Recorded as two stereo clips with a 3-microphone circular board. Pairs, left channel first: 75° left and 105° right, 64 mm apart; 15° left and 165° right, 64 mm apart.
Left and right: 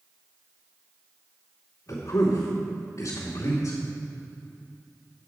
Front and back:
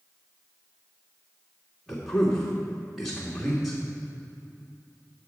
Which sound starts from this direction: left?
A man speaking, at 1.9 s.